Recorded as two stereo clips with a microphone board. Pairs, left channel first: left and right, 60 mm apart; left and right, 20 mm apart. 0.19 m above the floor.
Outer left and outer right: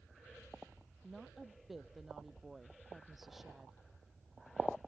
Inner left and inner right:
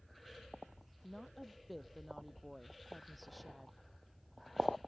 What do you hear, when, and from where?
1.0 s a woman speaking: centre (ahead or behind)